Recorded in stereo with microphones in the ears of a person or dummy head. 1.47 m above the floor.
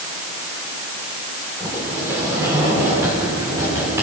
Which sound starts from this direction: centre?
A sliding door, at 1.6 s.